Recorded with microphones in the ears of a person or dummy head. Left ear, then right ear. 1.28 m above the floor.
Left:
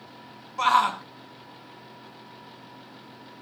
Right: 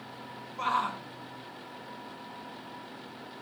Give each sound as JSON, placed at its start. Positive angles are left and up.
{"t": 0.6, "sound": "a shout", "side_deg": 35, "distance_m": 0.6}